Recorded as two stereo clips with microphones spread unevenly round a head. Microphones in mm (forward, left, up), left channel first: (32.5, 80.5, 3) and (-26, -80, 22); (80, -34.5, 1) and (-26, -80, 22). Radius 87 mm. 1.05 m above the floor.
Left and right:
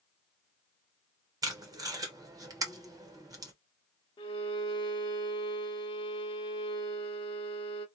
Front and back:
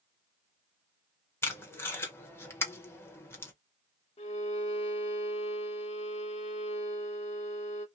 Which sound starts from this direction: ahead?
A violin, at 4.2 s.